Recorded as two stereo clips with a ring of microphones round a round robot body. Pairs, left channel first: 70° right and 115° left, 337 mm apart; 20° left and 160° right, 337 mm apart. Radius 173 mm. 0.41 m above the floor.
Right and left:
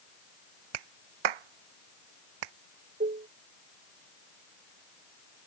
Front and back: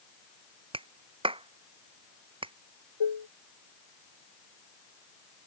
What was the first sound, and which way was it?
A clap, 125° left.